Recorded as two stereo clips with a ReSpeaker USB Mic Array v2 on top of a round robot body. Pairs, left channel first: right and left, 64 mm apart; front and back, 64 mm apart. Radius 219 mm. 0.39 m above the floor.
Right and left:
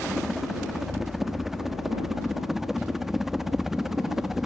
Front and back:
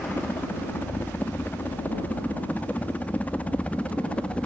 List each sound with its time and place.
0.0 s a helicopter: 5° left; by 4.5 s 15° left